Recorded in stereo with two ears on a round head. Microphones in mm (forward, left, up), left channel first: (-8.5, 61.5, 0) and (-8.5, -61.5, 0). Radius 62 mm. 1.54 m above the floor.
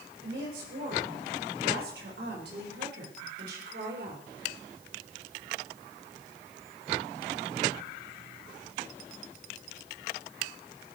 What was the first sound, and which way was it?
A woman speaking, 70° right (ahead or behind).